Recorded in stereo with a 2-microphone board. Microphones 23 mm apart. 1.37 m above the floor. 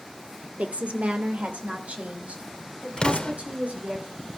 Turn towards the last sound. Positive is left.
turn(degrees=45)  # may be behind; listen again after turning